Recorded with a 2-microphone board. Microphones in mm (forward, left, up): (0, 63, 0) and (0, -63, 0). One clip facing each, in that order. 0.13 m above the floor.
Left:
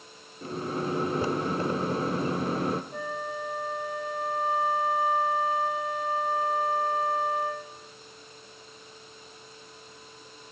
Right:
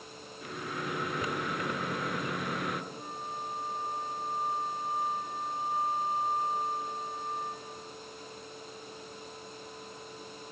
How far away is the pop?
No pop in this recording.